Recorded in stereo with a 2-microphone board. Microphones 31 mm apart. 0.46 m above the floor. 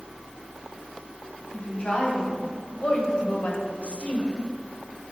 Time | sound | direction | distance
1.5 | a woman speaking | 40° left (ahead or behind) | 3.5 m